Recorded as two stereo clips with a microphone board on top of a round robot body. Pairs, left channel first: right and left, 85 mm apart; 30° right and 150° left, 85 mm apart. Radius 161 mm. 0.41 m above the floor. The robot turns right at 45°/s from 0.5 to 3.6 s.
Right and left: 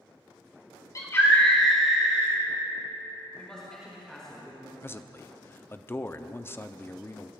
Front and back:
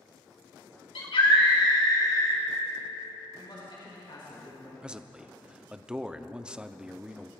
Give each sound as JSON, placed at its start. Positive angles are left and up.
{"t": 0.9, "sound": "a scream", "azimuth_deg": -35, "distance_m": 6.0}
{"t": 3.4, "sound": "a man speaking", "azimuth_deg": -15, "distance_m": 4.5}
{"t": 4.8, "sound": "a man speaking", "azimuth_deg": -135, "distance_m": 0.9}